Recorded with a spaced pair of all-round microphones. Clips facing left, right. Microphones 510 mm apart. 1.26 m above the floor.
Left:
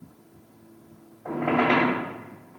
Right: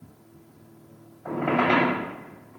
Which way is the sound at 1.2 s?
30° right (ahead or behind).